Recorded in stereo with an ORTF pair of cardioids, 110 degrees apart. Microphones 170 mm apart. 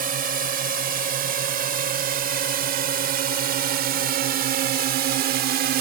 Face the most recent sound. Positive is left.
turn(degrees=-70)